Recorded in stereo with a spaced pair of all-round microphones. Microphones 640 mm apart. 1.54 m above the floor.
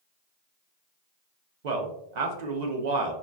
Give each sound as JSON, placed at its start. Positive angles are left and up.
{"t": 1.6, "sound": "a man speaking", "side_deg": -80, "distance_m": 0.7}